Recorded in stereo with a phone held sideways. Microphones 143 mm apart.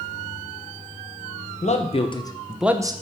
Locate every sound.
1.6 s a man speaking: 55° left (ahead or behind), 1.2 m; by 2.9 s 30° right (ahead or behind), 0.7 m